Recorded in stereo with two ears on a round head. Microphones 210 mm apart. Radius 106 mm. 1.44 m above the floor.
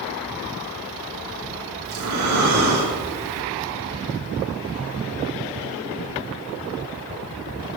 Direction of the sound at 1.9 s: 65° right (ahead or behind).